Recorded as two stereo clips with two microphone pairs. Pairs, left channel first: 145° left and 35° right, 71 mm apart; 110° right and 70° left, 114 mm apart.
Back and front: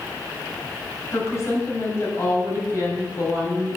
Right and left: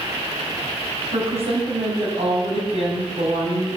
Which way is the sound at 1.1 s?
95° left.